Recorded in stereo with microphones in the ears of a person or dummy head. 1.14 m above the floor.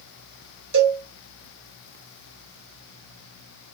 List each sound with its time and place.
0.7 s a cowbell: 80° right, 2.5 m